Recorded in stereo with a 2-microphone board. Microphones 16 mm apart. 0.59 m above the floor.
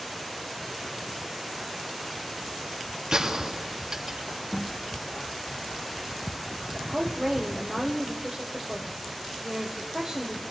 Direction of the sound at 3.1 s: 45° right (ahead or behind).